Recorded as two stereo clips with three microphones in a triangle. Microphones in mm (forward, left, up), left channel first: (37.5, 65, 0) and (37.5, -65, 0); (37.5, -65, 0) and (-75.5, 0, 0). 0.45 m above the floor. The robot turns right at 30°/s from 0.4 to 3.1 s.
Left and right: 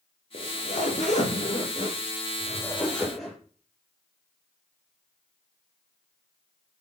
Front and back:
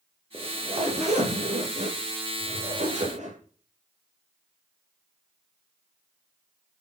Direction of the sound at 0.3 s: 100° left.